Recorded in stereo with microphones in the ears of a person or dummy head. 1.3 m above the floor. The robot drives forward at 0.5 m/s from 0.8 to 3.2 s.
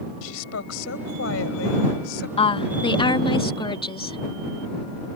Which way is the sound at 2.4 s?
30° left (ahead or behind).